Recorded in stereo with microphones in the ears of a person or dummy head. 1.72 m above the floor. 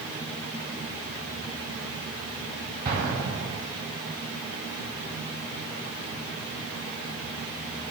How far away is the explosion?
About 3 m.